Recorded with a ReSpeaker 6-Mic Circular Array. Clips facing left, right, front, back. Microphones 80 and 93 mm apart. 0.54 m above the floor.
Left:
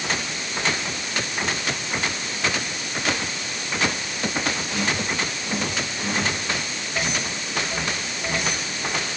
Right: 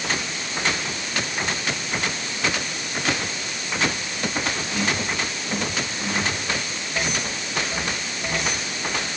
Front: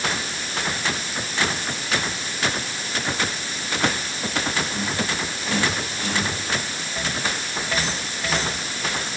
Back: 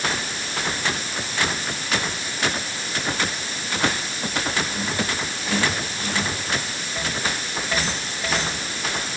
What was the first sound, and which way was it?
Only background noise.